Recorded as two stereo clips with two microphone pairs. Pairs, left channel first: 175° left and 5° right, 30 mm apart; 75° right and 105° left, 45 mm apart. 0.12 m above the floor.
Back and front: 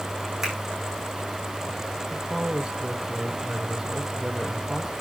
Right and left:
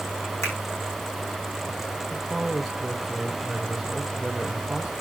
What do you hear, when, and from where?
0.4 s a finger snap: 75° right, 5.5 m
2.1 s a man speaking: 15° left, 1.2 m